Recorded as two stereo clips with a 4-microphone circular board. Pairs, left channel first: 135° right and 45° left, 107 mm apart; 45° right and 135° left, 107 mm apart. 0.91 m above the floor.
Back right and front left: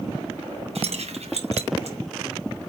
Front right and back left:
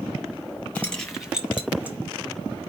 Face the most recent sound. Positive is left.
turn(degrees=60)